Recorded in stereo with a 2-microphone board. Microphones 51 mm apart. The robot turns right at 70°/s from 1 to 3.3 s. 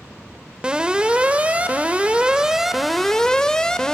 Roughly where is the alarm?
Right.